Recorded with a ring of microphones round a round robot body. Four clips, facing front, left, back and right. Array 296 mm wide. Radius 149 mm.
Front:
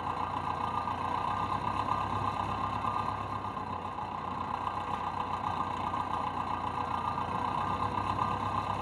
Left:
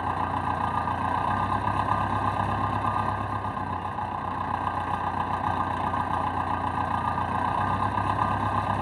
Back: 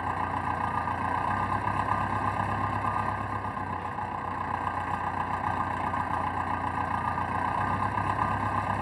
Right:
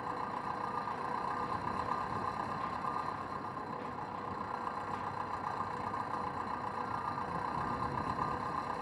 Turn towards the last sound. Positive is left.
turn(degrees=105)